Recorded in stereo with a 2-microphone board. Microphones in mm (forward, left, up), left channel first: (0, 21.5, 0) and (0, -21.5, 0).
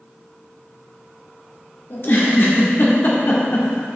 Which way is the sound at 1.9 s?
60° left (ahead or behind).